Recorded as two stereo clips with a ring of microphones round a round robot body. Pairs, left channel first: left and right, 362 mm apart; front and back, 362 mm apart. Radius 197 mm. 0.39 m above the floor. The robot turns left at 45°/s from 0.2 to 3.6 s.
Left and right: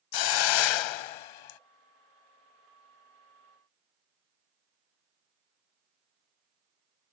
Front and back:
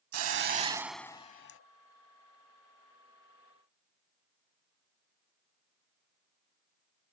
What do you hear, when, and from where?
0.1 s a hiss: 125° left; by 1.6 s 60° left